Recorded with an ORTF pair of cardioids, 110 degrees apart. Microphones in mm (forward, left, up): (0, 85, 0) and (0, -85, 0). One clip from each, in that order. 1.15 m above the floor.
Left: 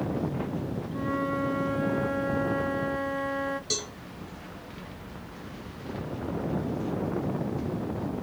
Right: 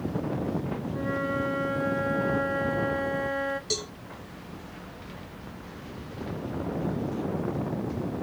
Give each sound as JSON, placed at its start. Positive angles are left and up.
{"t": 0.9, "sound": "a flute", "azimuth_deg": 0, "distance_m": 0.6}
{"t": 3.7, "sound": "a cowbell", "azimuth_deg": 0, "distance_m": 1.7}